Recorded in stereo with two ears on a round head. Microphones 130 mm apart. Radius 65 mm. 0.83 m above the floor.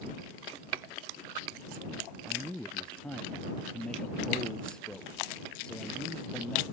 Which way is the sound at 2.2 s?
5° left (ahead or behind).